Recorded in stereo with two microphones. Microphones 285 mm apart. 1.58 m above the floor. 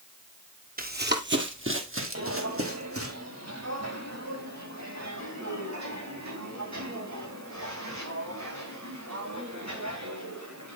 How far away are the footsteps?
About 2.5 m.